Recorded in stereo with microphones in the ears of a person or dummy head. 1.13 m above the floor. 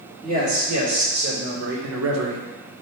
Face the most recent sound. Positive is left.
turn(degrees=-75)  # may be behind; listen again after turning